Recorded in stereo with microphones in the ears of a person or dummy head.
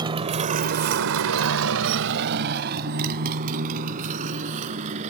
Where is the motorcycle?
20° right (ahead or behind); by 5.1 s 45° right (ahead or behind).